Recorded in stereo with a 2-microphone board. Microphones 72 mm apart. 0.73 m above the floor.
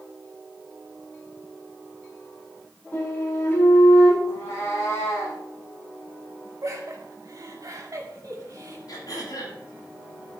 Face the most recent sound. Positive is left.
turn(degrees=65)  # may be behind; listen again after turning